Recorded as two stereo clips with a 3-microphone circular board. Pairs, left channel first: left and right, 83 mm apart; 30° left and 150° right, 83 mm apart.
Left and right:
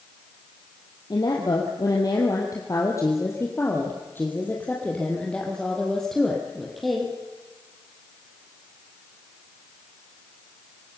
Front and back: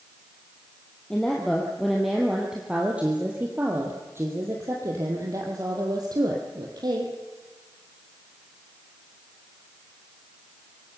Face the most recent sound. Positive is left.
turn(degrees=-175)